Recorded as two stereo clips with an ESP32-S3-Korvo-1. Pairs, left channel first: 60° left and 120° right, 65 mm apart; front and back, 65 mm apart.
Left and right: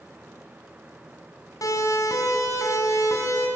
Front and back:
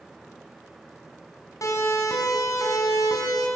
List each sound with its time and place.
1.6 s a siren: 30° left, 5.5 m; by 3.5 s 20° left, 5.5 m